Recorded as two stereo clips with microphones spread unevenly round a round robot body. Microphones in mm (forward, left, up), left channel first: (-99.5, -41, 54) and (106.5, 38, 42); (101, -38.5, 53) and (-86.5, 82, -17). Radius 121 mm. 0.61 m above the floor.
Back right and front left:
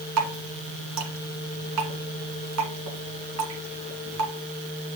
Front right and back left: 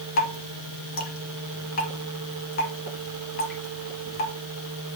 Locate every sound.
0.2 s dripping: 15° left, 1.9 m